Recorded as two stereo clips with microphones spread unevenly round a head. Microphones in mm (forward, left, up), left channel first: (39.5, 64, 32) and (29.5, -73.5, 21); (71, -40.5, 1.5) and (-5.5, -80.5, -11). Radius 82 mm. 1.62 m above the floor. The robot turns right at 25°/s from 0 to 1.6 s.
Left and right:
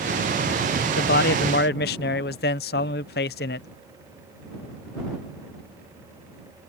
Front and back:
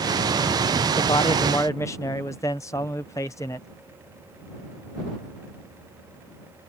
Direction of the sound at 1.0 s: 75° left.